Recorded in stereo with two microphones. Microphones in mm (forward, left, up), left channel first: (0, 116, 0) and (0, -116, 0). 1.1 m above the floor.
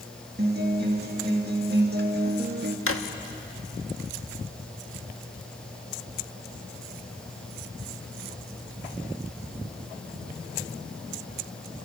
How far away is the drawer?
About 1.2 m.